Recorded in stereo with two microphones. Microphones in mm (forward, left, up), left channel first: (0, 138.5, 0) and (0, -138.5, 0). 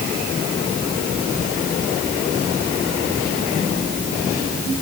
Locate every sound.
Only background noise.